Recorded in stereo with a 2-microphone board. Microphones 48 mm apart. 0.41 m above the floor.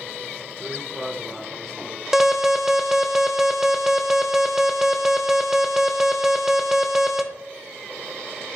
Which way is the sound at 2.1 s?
10° right (ahead or behind).